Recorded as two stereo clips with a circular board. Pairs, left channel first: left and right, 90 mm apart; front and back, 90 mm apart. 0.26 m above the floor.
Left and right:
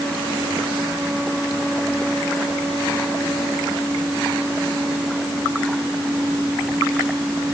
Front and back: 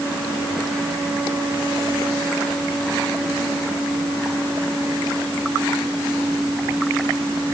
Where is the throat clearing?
No throat clearing in this recording.